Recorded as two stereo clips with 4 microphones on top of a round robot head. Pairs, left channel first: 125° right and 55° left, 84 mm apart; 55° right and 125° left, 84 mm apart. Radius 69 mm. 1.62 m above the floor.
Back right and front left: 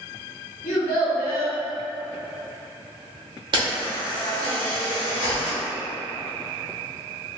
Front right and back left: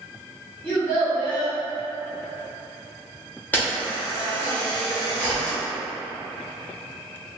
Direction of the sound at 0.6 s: 125° right.